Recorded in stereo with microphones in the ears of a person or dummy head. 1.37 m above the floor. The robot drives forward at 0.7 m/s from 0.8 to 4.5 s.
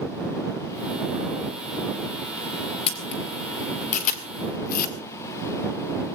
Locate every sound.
2.9 s a camera shutter: 30° left (ahead or behind), 2.5 m; by 5.0 s 50° left (ahead or behind), 1.6 m